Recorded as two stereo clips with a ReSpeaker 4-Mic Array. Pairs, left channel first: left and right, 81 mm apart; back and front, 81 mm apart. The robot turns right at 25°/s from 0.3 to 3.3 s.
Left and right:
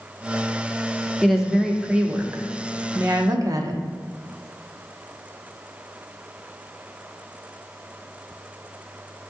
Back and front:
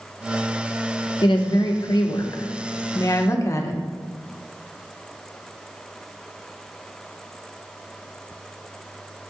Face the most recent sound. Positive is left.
turn(degrees=-130)